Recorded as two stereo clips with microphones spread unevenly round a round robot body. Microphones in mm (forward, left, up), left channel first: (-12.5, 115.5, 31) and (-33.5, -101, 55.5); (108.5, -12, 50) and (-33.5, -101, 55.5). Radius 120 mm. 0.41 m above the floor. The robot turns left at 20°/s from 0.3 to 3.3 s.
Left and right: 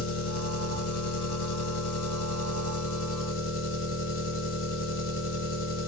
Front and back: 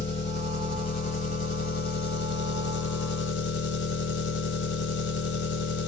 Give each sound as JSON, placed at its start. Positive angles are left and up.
{"t": 0.0, "sound": "an engine running", "azimuth_deg": 110, "distance_m": 1.0}